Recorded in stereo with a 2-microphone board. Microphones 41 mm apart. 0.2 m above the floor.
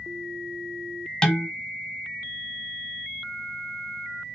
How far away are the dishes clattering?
About 1.0 m.